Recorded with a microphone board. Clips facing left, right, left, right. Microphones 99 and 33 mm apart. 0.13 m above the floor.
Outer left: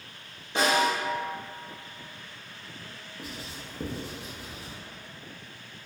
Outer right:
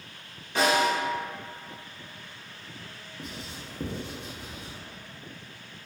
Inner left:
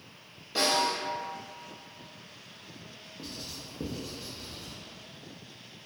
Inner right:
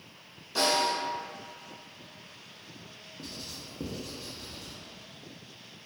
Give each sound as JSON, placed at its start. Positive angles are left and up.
{"t": 0.6, "sound": "a snare drum", "side_deg": 20, "distance_m": 1.4}
{"t": 3.2, "sound": "writing", "side_deg": 0, "distance_m": 0.6}